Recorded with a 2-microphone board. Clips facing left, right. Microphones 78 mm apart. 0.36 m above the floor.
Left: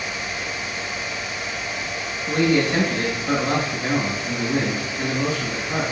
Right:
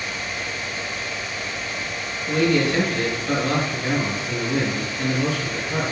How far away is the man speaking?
About 2.5 m.